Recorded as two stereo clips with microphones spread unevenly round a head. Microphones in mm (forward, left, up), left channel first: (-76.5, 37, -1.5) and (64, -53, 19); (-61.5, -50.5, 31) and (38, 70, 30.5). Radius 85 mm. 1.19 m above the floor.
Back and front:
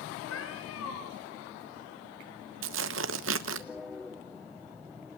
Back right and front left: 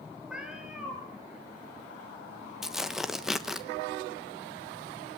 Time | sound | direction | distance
0.3 | a cat meowing | 135° left | 5 m
2.6 | tearing paper | 35° right | 1.2 m